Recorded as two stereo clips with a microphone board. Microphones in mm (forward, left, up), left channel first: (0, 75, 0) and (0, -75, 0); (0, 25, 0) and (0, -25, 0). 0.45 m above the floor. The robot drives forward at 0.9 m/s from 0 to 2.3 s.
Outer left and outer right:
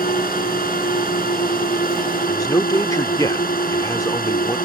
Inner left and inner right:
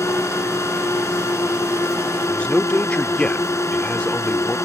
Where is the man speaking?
25° left (ahead or behind).